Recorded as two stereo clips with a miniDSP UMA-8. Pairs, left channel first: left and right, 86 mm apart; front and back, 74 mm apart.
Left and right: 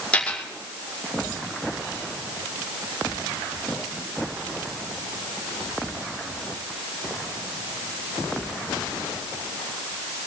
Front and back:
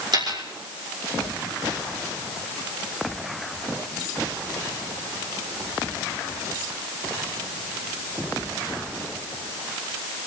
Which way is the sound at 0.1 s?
165° left.